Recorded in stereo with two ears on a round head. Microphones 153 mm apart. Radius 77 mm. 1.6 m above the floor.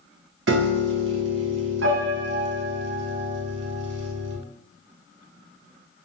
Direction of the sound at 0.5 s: 75° right (ahead or behind).